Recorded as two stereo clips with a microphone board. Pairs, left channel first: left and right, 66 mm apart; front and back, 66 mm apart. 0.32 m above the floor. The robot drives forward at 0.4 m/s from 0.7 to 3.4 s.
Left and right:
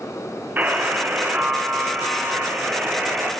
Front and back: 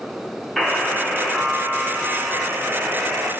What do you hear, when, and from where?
0.6 s a buzzer: 90° right, 1.5 m; by 3.3 s 150° right, 1.8 m